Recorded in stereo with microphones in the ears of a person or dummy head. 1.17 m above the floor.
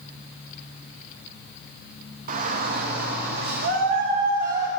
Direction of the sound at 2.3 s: 45° right (ahead or behind).